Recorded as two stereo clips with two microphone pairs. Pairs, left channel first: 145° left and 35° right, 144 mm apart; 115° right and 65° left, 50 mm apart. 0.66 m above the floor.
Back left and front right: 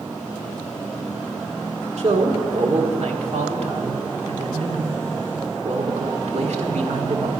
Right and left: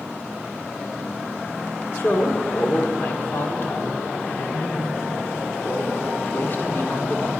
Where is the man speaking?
70° right, 1.3 m.